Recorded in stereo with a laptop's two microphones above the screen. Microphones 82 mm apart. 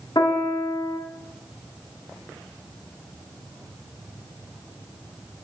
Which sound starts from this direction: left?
A piano, at 0.1 s.